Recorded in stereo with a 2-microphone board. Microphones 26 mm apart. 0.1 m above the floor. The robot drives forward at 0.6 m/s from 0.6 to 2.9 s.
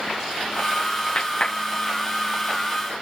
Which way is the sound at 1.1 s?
40° left (ahead or behind).